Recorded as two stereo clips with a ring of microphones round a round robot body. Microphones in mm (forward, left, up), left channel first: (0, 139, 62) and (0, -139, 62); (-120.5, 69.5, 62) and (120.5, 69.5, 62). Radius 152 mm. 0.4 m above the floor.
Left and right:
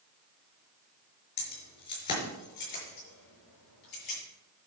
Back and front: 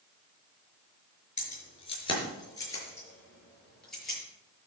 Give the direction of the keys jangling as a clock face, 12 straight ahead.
8 o'clock.